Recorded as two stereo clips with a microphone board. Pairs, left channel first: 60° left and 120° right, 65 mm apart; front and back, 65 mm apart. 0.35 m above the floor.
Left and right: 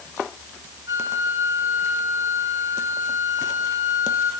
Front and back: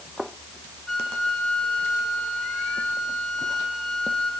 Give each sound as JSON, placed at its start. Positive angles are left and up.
{"t": 0.9, "sound": "a flute", "azimuth_deg": -85, "distance_m": 3.0}